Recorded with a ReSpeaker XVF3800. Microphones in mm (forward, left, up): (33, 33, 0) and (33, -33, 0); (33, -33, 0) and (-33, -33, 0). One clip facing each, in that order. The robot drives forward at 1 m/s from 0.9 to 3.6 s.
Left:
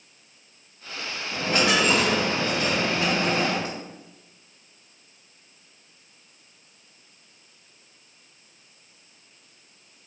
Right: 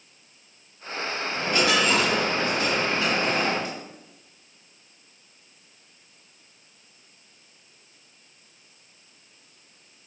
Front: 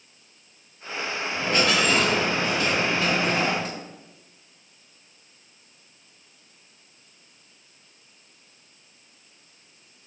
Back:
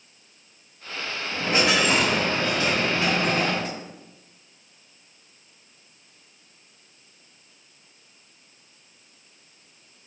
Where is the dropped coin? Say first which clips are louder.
Left 1 dB, back 1 dB; 115° left, 2.5 m; by 3.8 s 145° left, 4 m.